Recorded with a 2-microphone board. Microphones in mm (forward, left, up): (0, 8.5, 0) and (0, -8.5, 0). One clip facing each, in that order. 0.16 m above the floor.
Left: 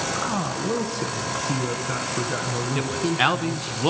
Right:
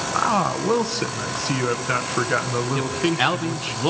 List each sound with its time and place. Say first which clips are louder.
0.1 s a man speaking: right 5 dB; 40° right (ahead or behind), 1.9 m
2.8 s a man speaking: even; 5° left (ahead or behind), 1.5 m